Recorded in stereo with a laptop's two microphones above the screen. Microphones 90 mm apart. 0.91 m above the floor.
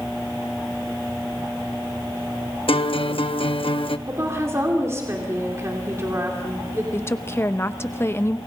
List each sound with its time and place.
2.7 s a guitar: 85° left, 0.8 m
4.1 s a woman speaking: 30° right (ahead or behind), 2.5 m
6.9 s a woman speaking: 30° left (ahead or behind), 0.8 m